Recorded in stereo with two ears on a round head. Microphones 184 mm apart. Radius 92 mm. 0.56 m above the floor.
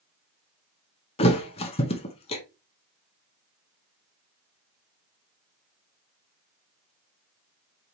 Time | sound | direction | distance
1.2 | a thud | 30° left (ahead or behind) | 0.8 m